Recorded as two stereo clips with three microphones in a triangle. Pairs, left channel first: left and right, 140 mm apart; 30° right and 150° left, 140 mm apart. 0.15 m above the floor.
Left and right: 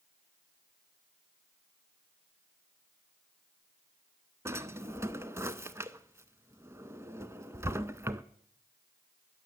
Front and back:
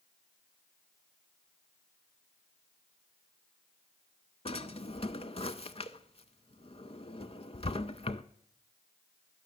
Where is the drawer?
25° right, 0.5 m.